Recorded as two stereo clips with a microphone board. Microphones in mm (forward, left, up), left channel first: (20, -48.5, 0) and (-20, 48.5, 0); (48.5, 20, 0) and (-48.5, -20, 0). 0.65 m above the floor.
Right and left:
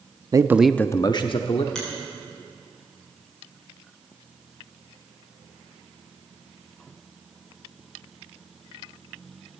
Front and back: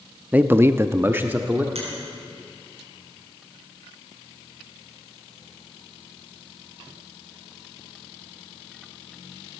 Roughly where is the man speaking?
Behind left.